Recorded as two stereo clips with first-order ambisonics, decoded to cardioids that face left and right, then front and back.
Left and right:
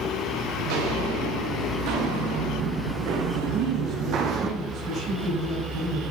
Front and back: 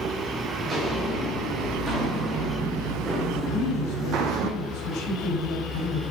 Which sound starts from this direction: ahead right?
A woman speaking, at 3.5 s.